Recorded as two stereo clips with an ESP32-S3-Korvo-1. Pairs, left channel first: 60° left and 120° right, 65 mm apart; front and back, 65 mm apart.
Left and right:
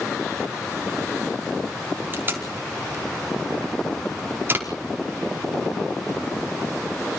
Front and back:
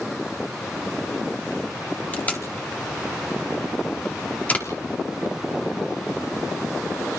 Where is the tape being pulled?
65° right, 5 m.